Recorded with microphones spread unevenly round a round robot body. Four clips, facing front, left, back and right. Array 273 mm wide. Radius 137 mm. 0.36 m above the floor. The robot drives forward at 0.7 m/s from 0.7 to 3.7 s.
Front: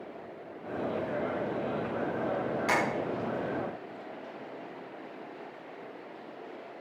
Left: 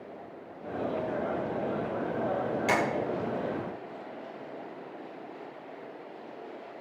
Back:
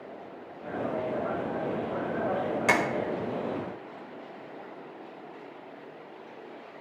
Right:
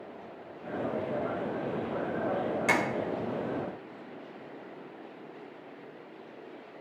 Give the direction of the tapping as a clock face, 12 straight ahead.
6 o'clock.